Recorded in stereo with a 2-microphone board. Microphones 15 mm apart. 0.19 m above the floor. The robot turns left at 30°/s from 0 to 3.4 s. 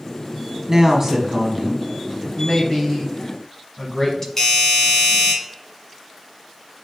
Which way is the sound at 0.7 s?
25° right (ahead or behind).